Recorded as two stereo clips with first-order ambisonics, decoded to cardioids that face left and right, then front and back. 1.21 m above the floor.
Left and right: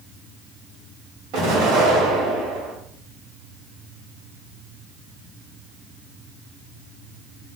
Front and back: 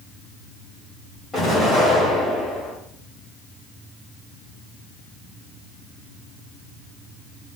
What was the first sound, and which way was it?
An explosion, 85° right.